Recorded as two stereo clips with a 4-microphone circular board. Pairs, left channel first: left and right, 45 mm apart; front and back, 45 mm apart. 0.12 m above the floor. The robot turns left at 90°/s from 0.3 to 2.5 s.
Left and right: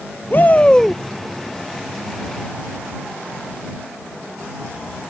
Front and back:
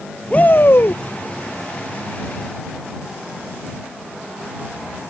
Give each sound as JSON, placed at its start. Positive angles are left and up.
{"t": 0.3, "sound": "a shout", "azimuth_deg": 60}